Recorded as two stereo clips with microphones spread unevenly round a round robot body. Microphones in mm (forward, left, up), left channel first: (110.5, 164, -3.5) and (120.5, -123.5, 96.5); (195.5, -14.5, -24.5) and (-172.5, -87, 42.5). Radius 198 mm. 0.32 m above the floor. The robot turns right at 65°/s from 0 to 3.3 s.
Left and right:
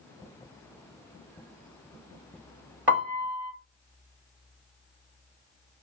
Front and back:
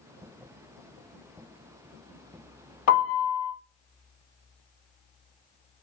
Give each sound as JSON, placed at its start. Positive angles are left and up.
{"t": 2.9, "sound": "a piano", "azimuth_deg": -35, "distance_m": 1.7}